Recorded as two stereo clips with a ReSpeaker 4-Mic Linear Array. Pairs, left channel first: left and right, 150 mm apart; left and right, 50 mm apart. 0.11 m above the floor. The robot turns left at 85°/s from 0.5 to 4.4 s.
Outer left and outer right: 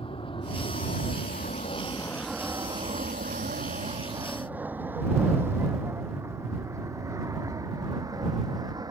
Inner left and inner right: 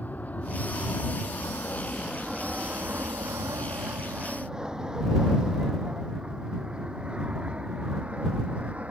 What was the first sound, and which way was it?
An aircraft, 35° left (ahead or behind).